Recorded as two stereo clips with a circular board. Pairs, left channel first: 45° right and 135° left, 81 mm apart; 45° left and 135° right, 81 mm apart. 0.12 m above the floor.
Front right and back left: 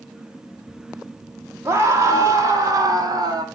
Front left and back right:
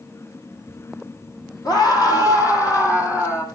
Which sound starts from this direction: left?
A scream, at 1.6 s.